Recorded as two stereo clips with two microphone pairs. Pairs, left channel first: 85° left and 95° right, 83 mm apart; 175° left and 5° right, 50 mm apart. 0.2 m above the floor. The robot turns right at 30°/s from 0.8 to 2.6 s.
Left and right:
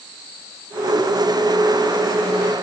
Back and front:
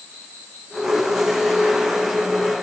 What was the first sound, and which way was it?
Only background noise.